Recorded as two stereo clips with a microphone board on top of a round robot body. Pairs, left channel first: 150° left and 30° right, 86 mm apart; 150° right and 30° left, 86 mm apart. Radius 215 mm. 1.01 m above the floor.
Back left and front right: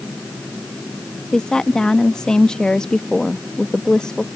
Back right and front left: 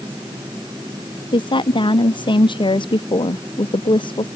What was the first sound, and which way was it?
A woman speaking, 125° right.